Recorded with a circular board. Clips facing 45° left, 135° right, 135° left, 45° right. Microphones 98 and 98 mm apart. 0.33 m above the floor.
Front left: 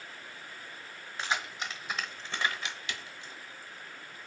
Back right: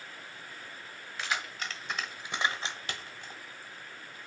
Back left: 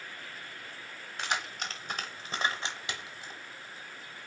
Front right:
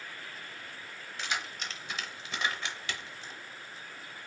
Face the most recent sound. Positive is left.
turn(degrees=-145)